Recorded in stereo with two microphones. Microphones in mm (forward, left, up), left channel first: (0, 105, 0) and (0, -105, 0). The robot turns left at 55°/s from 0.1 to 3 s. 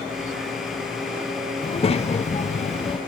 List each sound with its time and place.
1.6 s a child speaking: 130° left, 0.6 m; by 3.0 s 55° left, 0.6 m